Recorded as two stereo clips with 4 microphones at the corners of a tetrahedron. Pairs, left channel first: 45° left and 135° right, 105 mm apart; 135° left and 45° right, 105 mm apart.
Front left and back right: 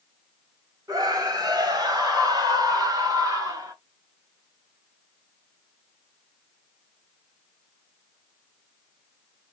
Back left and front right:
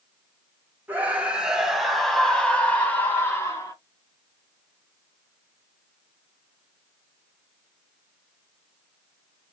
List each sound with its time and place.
0.9 s a scream: 110° right, 1.7 m; by 3.8 s 175° right, 2.0 m